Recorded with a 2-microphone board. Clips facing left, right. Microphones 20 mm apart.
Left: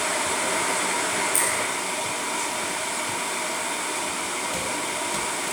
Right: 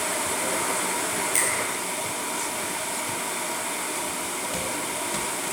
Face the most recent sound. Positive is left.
turn(degrees=-45)  # may be behind; listen again after turning